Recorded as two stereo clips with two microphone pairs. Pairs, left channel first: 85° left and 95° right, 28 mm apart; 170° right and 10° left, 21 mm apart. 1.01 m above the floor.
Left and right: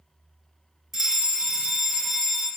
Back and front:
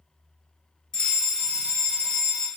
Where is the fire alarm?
150° right, 1.2 m.